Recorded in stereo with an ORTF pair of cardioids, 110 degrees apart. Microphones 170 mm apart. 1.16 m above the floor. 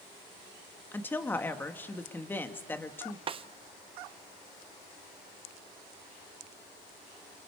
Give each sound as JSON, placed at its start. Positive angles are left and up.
{"t": 0.9, "sound": "a woman speaking", "azimuth_deg": 10, "distance_m": 1.7}
{"t": 3.3, "sound": "a snare drum", "azimuth_deg": -35, "distance_m": 0.7}